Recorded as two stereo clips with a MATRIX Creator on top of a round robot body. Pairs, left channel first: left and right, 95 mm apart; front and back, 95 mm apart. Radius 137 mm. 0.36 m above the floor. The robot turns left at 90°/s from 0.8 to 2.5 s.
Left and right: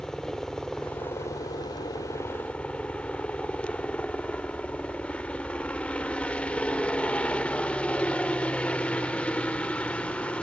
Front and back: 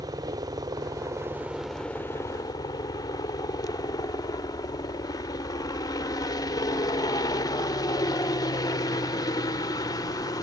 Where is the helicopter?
170° left; by 10.4 s 15° left.